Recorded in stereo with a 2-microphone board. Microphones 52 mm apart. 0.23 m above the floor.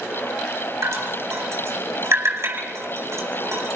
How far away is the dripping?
About 9 m.